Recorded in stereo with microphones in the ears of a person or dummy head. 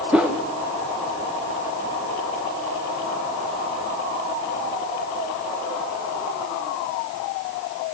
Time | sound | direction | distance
0.1 | a whoosh | 5° right (ahead or behind) | 1.1 m